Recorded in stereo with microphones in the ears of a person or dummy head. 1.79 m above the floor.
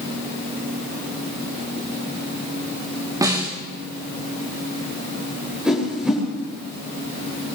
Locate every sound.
3.2 s a snare drum: 20° right (ahead or behind), 4 m
5.7 s a whoosh: centre (ahead or behind), 9 m